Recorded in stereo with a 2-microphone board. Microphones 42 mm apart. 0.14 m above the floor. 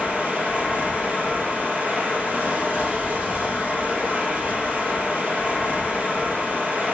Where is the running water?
40° right (ahead or behind), 1.7 m.